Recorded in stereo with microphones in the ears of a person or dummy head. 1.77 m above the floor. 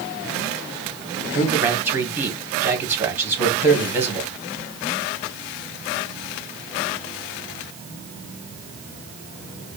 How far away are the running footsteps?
No running footsteps in this recording.